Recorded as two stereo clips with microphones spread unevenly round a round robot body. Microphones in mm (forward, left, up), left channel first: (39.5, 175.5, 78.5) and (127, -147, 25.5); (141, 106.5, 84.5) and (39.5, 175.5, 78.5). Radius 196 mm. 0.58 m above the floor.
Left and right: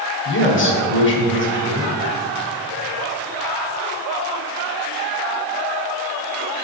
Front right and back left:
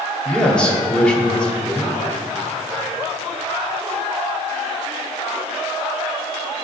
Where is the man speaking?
50° left, 2 m.